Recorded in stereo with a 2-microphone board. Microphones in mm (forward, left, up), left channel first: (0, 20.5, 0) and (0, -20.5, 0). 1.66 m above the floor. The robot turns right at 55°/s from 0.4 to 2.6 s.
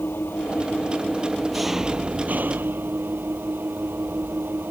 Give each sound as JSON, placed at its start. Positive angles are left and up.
{"t": 0.0, "sound": "an engine running", "azimuth_deg": 115}